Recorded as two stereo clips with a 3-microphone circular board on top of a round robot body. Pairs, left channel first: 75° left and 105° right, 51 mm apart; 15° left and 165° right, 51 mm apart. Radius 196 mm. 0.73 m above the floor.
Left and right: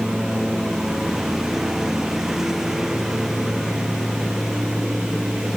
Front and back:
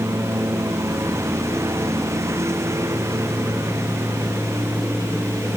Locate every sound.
0.0 s a lawn mower: 175° left